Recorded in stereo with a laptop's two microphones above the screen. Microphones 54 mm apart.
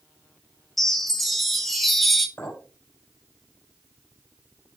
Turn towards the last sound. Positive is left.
turn(degrees=50)  # may be behind; listen again after turning